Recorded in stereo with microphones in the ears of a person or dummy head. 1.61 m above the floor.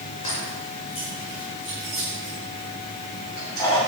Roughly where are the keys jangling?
Left.